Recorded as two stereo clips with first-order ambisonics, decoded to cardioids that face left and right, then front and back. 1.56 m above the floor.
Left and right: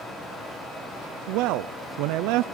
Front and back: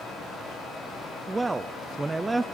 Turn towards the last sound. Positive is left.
turn(degrees=-100)